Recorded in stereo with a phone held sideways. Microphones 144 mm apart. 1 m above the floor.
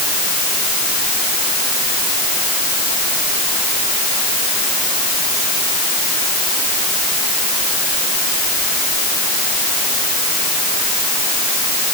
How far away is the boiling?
I don't hear boiling.